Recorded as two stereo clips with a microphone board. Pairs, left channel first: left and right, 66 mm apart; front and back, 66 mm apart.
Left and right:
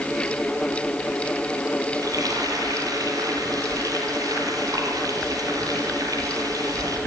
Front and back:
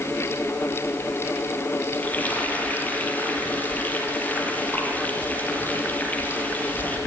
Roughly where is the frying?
Ahead right.